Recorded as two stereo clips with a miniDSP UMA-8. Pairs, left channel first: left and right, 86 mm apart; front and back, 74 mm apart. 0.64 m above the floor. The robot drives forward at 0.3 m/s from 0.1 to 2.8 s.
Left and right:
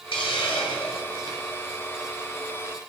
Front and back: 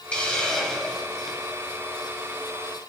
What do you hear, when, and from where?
0.1 s a hiss: 75° left, 1.3 m; by 1.4 s 95° left, 1.3 m